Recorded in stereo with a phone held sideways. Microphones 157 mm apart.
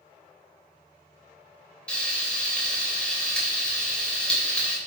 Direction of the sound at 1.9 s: 5° left (ahead or behind).